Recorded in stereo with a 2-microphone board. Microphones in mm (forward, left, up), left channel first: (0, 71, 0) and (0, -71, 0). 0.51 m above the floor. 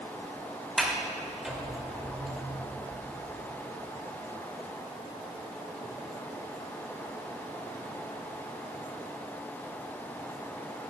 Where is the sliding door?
5° right (ahead or behind), 2 m.